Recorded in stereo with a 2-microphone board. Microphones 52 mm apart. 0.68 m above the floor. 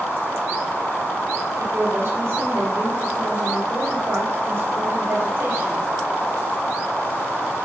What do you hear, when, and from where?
1.6 s a woman speaking: 50° right (ahead or behind), 3.5 m